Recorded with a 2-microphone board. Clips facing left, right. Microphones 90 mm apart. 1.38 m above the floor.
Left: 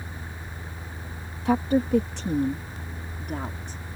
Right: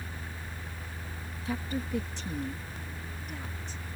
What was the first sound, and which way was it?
A woman speaking, 65° left (ahead or behind).